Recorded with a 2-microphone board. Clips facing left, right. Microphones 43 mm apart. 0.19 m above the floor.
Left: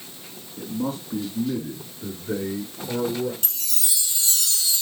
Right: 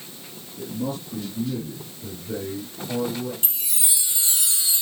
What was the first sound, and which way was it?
A man speaking, 40° left (ahead or behind).